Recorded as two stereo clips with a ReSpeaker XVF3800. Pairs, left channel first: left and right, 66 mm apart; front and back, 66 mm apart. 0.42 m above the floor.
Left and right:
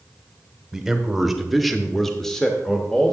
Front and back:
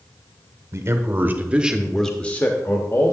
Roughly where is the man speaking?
Behind.